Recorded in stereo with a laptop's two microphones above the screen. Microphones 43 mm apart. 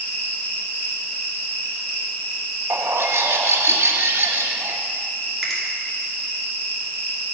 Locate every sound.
0.0 s an insect: 35° left (ahead or behind), 4 m
2.7 s a bird: 80° right, 0.9 m
5.4 s a finger snap: 5° left (ahead or behind), 2.5 m